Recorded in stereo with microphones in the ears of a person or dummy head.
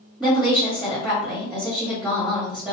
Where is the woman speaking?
10° right (ahead or behind), 1.2 m.